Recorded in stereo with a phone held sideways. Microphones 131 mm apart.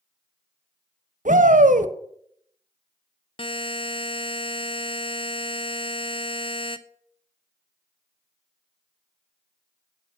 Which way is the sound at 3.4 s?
45° left (ahead or behind).